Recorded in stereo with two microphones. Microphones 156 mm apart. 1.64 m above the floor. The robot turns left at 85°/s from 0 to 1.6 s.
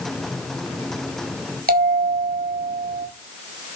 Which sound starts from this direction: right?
A bell, at 1.7 s.